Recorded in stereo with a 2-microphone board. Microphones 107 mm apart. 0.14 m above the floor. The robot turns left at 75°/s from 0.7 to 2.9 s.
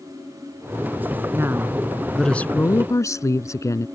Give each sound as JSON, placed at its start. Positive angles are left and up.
{"t": 1.3, "sound": "a woman speaking", "azimuth_deg": -125}